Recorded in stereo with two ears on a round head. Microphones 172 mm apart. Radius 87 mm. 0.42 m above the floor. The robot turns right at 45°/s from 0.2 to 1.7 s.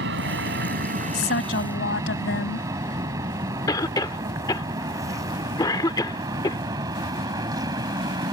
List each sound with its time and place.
0.0 s an aircraft: 65° right (ahead or behind); by 8.3 s 20° right (ahead or behind)
1.1 s a woman speaking: 55° left (ahead or behind); by 2.7 s 70° left (ahead or behind)
3.7 s a cough: 20° left (ahead or behind)